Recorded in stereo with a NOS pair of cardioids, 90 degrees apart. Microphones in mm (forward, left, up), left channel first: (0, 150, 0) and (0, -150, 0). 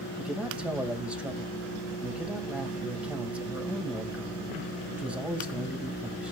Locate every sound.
0.2 s a man speaking: 5° right, 2.5 m